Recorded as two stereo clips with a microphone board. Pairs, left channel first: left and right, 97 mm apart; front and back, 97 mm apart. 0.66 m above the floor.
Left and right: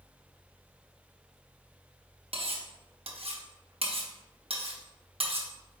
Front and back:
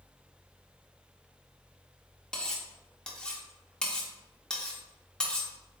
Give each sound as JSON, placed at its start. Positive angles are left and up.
{"t": 2.3, "sound": "cutlery clinking", "azimuth_deg": -80, "distance_m": 0.6}